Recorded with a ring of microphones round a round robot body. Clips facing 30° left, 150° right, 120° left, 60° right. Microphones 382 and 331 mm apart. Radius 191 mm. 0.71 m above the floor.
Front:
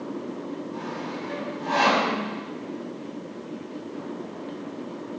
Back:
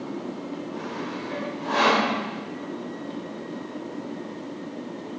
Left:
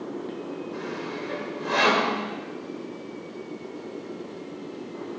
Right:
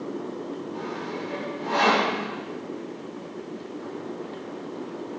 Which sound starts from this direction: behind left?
Sawing, at 0.7 s.